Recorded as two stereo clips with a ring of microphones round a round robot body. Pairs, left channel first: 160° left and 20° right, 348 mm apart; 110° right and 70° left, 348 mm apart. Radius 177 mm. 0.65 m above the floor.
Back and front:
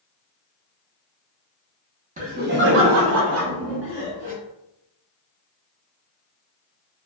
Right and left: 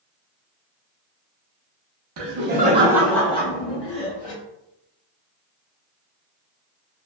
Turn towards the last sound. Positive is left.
turn(degrees=-75)